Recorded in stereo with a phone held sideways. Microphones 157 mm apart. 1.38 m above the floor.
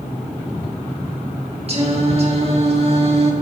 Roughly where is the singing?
Right.